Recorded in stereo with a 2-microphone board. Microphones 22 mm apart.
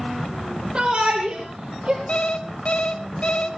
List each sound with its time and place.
0.8 s a shout: 55° right (ahead or behind), 3.5 m; by 2.0 s 50° right (ahead or behind), 4 m
2.1 s an alarm clock: 60° left (ahead or behind), 1.4 m